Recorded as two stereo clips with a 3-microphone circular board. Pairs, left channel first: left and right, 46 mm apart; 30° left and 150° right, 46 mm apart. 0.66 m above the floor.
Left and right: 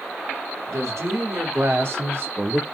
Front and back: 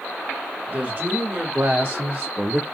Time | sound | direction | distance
0.7 | a woman speaking | 100° right | 2.5 m